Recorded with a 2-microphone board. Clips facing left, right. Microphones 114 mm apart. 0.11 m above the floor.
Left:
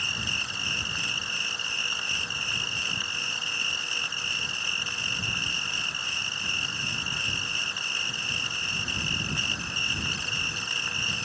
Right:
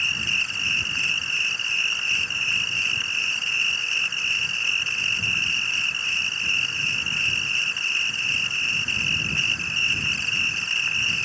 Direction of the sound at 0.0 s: 15° left (ahead or behind).